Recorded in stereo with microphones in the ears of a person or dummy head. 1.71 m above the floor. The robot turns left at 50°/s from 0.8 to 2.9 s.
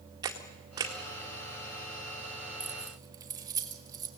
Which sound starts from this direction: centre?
Keys jangling, at 2.6 s.